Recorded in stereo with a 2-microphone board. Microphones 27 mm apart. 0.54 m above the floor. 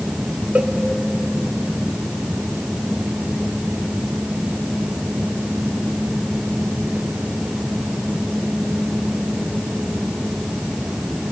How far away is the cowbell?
About 1.3 m.